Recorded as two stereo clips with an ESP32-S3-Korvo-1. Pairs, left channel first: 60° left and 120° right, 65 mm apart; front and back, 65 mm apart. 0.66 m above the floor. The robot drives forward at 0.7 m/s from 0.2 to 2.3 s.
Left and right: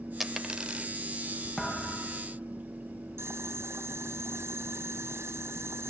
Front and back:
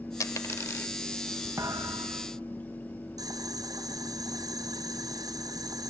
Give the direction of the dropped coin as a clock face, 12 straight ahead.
1 o'clock.